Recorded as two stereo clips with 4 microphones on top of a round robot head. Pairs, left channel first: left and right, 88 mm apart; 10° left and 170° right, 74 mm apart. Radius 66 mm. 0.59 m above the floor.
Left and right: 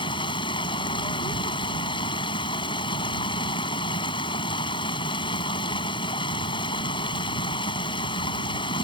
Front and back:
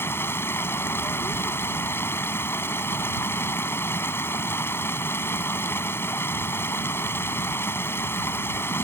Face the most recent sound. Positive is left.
turn(degrees=65)